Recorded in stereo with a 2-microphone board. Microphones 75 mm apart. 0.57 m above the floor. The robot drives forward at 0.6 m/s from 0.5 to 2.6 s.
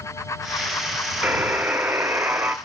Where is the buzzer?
20° right (ahead or behind), 0.8 m; by 2.5 s 25° right (ahead or behind), 0.7 m.